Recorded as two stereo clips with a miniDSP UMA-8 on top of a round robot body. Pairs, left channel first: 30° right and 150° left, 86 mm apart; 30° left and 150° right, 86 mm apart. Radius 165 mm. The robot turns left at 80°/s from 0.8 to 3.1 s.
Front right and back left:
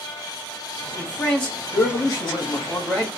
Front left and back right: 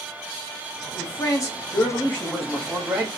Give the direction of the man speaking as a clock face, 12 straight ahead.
10 o'clock.